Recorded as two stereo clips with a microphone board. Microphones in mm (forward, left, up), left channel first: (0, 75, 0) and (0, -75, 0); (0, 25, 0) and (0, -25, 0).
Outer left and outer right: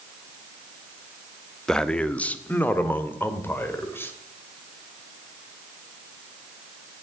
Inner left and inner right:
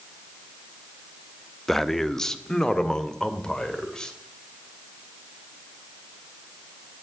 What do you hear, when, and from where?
1.7 s a man speaking: 5° left (ahead or behind), 0.7 m; by 4.1 s 15° left (ahead or behind), 2 m